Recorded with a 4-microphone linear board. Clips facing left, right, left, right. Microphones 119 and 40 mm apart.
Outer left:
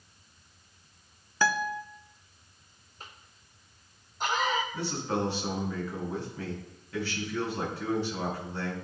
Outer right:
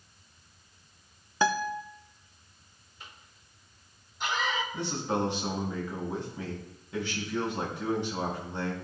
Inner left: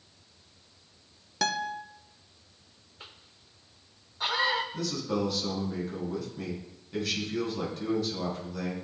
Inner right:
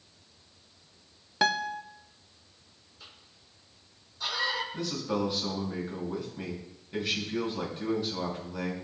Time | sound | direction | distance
1.4 | a guitar | 20° right (ahead or behind) | 0.5 m
3.0 | a cough | 40° left (ahead or behind) | 1.2 m
4.7 | a man speaking | 20° right (ahead or behind) | 4.5 m